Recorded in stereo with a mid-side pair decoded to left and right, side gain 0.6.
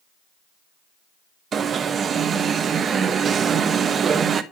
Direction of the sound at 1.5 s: 35° right.